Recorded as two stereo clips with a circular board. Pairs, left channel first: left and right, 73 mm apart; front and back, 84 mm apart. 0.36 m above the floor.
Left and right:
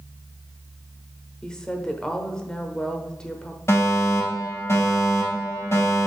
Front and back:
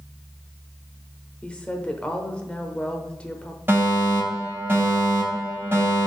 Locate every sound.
1.4 s a woman speaking: 40° left, 0.9 m
3.7 s a fire alarm: 125° left, 4 m